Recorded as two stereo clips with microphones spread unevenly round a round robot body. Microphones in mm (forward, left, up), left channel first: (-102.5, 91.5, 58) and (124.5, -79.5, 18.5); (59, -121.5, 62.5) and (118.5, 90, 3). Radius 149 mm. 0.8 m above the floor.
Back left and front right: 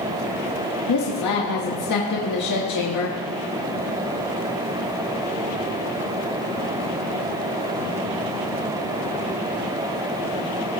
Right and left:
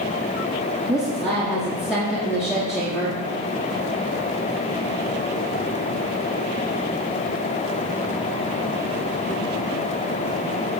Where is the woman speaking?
150° left, 1.4 m.